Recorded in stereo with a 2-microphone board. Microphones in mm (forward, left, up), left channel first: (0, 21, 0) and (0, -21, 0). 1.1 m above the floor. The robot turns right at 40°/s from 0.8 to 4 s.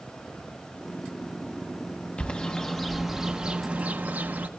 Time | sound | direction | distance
2.2 | a bird | 30° left (ahead or behind) | 0.6 m